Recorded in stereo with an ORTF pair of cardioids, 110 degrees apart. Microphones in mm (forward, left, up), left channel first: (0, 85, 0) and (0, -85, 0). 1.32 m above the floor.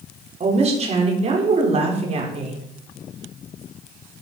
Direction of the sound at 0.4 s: 40° right.